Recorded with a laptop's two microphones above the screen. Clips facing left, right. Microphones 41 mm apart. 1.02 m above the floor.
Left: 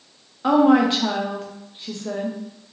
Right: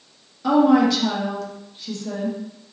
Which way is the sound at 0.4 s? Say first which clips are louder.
Even; 35° left (ahead or behind).